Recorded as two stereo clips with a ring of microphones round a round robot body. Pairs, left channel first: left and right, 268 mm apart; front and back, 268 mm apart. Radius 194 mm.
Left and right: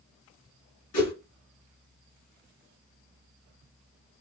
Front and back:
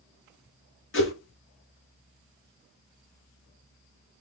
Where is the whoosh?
40° left, 2.5 m.